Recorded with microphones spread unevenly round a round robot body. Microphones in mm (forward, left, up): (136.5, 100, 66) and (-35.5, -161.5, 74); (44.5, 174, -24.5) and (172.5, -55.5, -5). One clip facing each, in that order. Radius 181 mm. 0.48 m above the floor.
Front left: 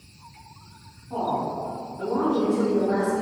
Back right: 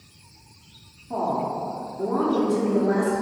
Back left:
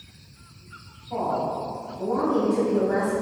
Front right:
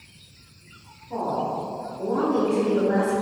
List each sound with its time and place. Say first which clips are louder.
1.1 s a woman speaking: back right 1 dB, even; 130° right, 1.2 m